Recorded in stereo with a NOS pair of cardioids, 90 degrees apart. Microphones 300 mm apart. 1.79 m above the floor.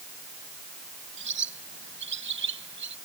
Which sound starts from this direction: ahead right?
A bird, at 1.2 s.